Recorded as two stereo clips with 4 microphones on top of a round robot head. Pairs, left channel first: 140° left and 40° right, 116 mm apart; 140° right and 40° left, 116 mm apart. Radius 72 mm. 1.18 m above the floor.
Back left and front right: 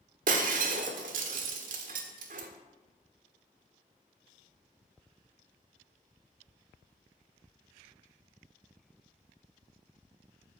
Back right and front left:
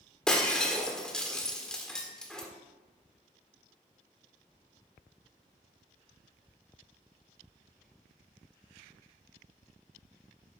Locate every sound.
0.3 s breaking glass: 55° right, 1.4 m